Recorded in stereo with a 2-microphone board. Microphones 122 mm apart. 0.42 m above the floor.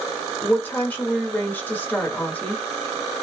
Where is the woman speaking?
15° left (ahead or behind), 1.0 m.